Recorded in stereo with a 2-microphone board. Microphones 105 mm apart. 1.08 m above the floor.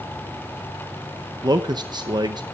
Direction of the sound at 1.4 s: 45° right (ahead or behind).